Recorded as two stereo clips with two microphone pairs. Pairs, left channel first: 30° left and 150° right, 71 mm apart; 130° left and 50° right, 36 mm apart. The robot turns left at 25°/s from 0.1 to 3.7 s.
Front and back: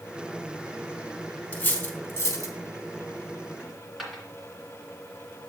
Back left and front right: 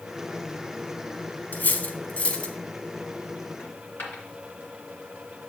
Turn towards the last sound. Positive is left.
turn(degrees=125)